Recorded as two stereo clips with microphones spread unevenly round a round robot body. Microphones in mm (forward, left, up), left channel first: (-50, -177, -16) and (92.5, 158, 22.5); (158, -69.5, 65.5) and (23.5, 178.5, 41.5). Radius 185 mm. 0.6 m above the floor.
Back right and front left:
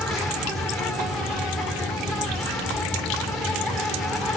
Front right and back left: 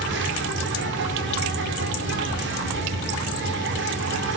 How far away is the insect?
About 2.5 m.